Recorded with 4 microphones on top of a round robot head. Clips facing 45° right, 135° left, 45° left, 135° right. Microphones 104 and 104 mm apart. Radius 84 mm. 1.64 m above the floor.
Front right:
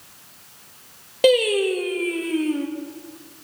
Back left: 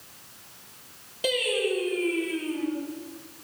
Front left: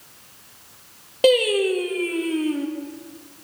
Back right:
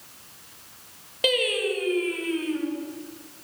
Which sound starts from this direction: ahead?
Singing, at 1.2 s.